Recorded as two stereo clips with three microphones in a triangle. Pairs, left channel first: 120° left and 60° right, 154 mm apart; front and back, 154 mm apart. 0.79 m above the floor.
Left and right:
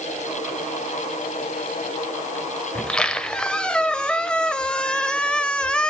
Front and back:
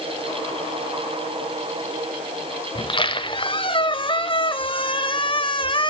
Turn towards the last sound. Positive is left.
turn(degrees=40)